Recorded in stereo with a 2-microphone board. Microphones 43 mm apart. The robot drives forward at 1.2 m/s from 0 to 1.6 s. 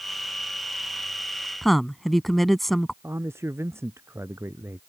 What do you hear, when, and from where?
1.6 s a woman speaking: 5° left (ahead or behind)
3.0 s a man speaking: 80° right